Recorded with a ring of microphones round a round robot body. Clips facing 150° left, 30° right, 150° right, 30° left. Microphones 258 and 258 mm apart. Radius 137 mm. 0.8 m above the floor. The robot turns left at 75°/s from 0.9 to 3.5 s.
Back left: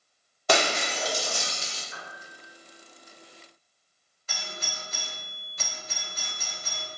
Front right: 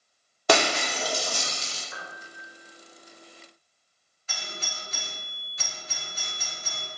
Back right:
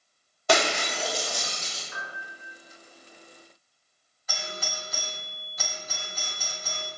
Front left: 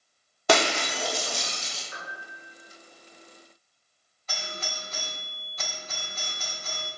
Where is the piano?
20° right, 0.6 m; by 2.6 s 70° right, 0.6 m.